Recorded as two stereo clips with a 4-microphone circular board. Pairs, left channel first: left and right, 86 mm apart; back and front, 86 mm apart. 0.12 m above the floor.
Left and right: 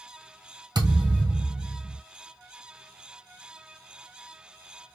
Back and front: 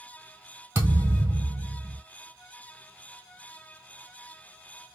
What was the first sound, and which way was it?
A thud, 60° right.